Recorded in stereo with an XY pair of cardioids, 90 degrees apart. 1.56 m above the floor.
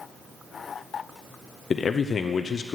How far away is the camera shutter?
No camera shutter in this recording.